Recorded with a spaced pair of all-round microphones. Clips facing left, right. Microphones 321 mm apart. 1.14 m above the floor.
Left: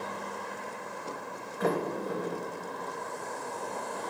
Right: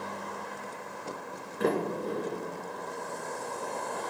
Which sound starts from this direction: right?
A sliding door, at 1.6 s.